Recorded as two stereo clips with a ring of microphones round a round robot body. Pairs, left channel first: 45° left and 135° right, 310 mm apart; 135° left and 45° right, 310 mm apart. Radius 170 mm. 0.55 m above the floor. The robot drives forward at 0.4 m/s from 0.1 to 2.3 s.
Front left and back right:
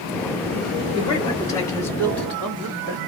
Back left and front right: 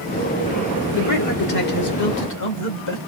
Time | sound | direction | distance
0.9 | a man speaking | 115° left | 1.8 m